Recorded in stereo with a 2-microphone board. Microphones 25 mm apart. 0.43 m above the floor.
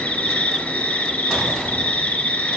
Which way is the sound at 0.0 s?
70° left (ahead or behind).